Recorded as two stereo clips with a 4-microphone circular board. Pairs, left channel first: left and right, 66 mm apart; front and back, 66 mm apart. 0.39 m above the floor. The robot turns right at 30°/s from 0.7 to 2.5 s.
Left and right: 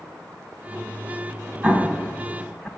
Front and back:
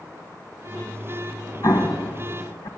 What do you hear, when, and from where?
1.6 s an explosion: 20° right, 1.6 m; by 2.7 s 5° left, 1.6 m